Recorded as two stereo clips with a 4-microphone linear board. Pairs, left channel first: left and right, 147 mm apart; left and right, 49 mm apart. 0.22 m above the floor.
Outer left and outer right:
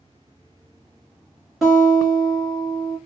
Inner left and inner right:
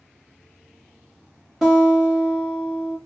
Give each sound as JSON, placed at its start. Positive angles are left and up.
{"t": 1.6, "sound": "a guitar", "side_deg": 0, "distance_m": 1.4}